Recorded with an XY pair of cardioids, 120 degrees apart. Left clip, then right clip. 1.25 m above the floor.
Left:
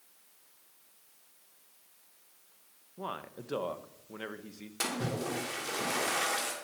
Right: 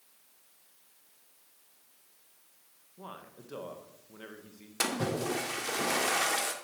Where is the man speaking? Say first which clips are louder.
Left 7 dB; 40° left, 1.2 m.